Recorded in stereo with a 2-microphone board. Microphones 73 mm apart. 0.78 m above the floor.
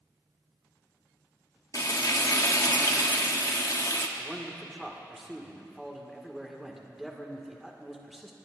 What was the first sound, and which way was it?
Frying, 50° left (ahead or behind).